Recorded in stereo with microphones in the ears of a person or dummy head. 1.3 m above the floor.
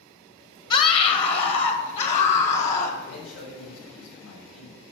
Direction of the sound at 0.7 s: 30° left (ahead or behind).